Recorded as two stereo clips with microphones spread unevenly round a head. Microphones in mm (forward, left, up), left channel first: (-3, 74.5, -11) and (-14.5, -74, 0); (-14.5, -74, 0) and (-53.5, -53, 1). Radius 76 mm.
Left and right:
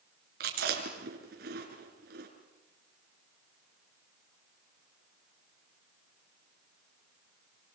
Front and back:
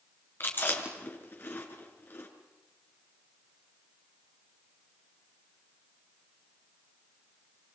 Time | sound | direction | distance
0.4 | chewing | 65° right | 5 m